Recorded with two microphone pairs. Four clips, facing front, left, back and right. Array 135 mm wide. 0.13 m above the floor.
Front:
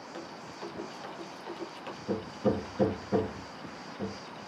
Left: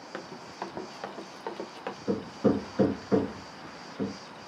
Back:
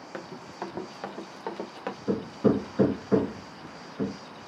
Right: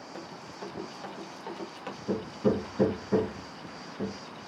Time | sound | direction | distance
0.1 | running footsteps | 130° left | 2 m
2.1 | hammering | 135° left | 3 m